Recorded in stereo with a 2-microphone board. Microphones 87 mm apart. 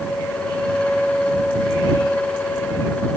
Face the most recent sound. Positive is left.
No sound to turn to.